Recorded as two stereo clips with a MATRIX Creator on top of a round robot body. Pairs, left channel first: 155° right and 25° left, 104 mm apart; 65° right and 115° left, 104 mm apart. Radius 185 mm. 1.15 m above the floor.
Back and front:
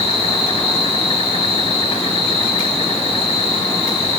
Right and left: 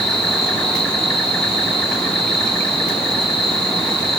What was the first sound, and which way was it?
An insect, 150° right.